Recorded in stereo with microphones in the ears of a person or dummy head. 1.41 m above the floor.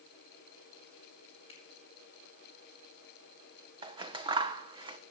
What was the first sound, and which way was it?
A finger snap, 25° left (ahead or behind).